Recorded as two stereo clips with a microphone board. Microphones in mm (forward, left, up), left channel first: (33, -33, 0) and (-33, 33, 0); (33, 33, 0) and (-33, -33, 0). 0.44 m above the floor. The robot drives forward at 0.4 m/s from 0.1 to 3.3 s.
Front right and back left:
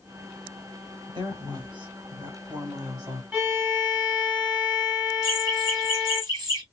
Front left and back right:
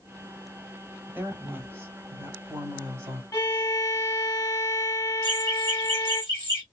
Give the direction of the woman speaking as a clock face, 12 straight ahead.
7 o'clock.